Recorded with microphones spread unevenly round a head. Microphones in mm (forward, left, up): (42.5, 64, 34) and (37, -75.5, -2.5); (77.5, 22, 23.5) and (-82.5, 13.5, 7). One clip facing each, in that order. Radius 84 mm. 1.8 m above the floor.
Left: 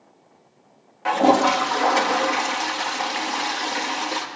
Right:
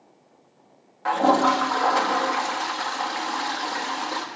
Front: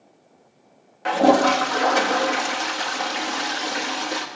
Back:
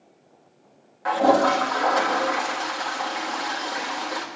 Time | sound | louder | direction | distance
1.1 | a toilet flushing | left 2 dB, front 2 dB | 45° left | 1.4 m